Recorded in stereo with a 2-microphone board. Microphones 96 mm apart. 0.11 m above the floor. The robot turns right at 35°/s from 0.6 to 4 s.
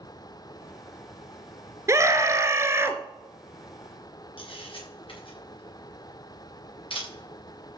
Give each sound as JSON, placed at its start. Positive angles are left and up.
{"t": 1.9, "sound": "a scream", "azimuth_deg": -95, "distance_m": 1.2}
{"t": 4.4, "sound": "a camera shutter", "side_deg": 65, "distance_m": 6.5}